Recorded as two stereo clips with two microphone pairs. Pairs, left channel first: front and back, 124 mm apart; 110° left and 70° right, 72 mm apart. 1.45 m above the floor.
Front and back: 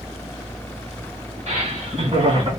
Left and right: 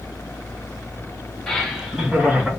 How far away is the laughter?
About 2 m.